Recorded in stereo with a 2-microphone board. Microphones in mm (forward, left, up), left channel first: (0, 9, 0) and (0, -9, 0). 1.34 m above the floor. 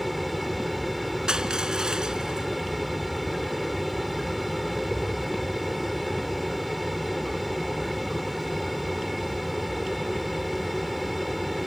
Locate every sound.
0.0 s an aircraft: 5° right (ahead or behind)
1.3 s crushing: 40° right (ahead or behind)